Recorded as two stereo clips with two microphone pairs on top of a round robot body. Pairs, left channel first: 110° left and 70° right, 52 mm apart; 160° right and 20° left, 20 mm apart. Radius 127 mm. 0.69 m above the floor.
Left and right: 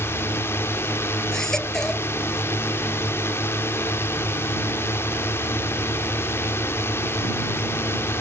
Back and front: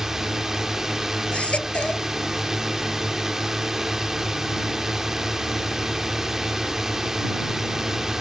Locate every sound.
0.0 s a drone: 85° left
1.3 s a baby crying: 170° right